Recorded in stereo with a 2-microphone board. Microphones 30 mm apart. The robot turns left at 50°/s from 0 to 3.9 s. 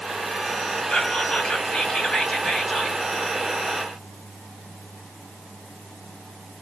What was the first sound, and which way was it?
Whispering, 120° left.